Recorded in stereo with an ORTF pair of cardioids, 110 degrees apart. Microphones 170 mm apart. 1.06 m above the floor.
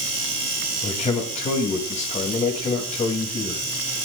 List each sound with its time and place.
0.8 s a man speaking: 45° left, 7 m